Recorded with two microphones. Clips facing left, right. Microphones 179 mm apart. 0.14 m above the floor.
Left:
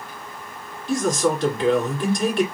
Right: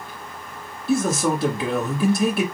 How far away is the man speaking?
About 1.9 m.